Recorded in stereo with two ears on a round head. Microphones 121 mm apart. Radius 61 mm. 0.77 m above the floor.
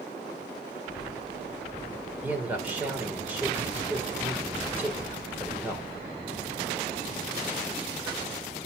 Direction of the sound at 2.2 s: 15° right (ahead or behind).